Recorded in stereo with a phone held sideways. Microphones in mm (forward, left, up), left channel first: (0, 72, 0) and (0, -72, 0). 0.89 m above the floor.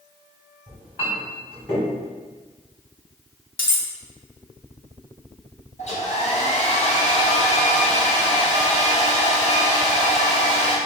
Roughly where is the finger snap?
I don't hear a finger snap.